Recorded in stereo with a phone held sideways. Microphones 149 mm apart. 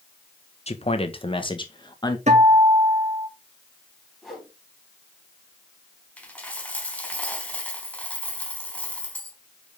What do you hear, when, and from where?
0.7 s a man speaking: 45° left (ahead or behind), 1.5 m; by 2.2 s 30° left (ahead or behind), 2 m
2.3 s a guitar: 50° right (ahead or behind), 3 m
4.2 s a whoosh: centre (ahead or behind), 5 m
6.2 s a dropped coin: 10° left (ahead or behind), 3 m